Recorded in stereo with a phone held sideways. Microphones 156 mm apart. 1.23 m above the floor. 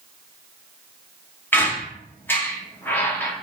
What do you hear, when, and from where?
1.5 s a squeak: 15° left (ahead or behind), 0.9 m